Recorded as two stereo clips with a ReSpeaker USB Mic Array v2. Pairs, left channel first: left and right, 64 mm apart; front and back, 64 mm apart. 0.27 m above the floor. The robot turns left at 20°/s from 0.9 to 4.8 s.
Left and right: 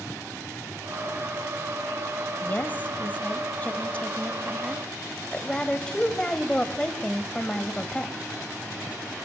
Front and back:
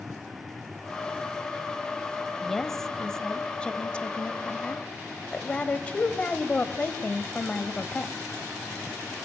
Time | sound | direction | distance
2.4 | a woman speaking | 80° left | 1.5 m